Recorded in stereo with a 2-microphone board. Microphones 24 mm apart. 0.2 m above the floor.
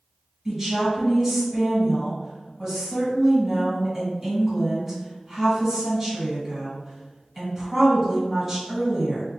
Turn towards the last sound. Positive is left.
turn(degrees=-10)  # may be behind; listen again after turning